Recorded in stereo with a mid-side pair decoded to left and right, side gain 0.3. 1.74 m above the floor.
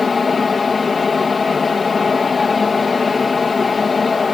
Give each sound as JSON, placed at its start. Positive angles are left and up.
{"t": 0.0, "sound": "a fan", "azimuth_deg": 50}